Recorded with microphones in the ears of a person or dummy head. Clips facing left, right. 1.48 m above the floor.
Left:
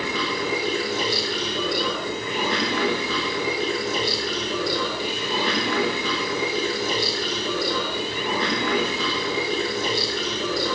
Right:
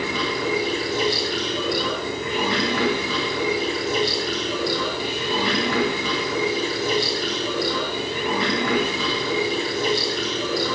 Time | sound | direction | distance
0.0 | running water | 75° right (ahead or behind) | 8 m